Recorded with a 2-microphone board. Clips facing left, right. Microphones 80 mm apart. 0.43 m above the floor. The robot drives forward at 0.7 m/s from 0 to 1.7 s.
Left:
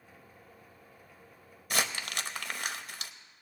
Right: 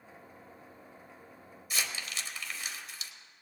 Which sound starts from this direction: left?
Crumpling, at 1.7 s.